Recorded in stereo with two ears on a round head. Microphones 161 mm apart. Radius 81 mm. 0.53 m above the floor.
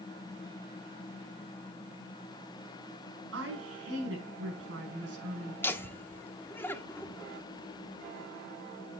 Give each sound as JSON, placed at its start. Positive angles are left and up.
{"t": 3.3, "sound": "a woman speaking", "side_deg": -70, "distance_m": 6.5}
{"t": 5.6, "sound": "laughter", "side_deg": 15, "distance_m": 0.8}